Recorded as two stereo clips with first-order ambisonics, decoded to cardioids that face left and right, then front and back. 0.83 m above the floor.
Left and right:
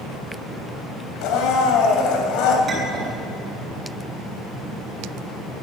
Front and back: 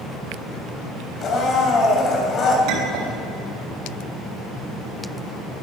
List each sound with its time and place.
1.2 s a blender: 60° left, 3 m
2.7 s a clink: 160° right, 4 m